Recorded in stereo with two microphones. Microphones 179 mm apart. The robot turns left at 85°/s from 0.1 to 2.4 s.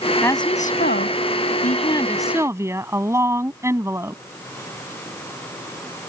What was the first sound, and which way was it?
A woman speaking, 170° left.